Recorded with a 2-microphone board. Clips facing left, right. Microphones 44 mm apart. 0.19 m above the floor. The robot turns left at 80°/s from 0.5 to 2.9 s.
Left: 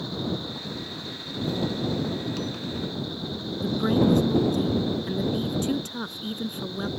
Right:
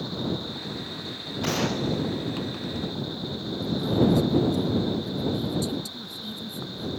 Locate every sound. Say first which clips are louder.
1.4 s a gunshot: right 2 dB; 85° right; by 2.9 s 160° left
3.6 s a woman speaking: left 1 dB; 55° left (ahead or behind)